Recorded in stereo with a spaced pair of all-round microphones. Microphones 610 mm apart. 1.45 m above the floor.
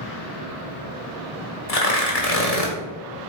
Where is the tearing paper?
70° left (ahead or behind), 1.5 m.